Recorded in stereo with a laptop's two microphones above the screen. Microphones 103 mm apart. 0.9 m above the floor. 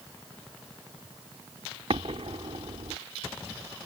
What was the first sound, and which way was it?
An explosion, 70° right (ahead or behind).